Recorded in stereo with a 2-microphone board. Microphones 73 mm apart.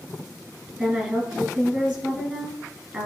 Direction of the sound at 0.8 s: 15° right (ahead or behind).